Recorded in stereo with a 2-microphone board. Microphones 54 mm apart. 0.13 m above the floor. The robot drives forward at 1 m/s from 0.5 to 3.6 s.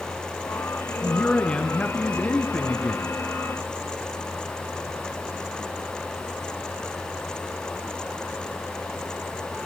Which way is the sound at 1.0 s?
15° left (ahead or behind).